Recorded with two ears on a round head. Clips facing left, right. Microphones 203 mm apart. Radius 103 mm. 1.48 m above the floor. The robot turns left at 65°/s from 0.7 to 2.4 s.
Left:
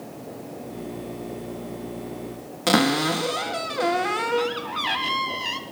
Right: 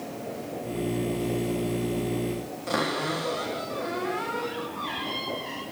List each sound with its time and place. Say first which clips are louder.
2.7 s a cupboard door: left 9 dB; 85° left, 3.5 m